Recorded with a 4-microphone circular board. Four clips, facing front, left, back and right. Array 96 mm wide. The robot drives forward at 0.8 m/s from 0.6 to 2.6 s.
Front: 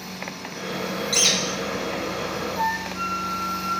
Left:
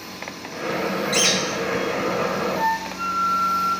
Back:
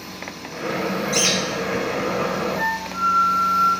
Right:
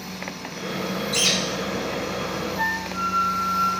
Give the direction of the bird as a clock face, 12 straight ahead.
8 o'clock.